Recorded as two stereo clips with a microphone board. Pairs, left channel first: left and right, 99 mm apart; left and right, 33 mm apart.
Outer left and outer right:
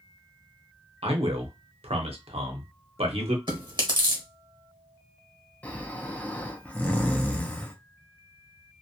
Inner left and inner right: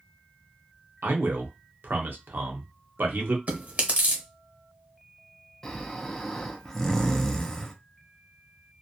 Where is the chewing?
50° right (ahead or behind), 1.1 m.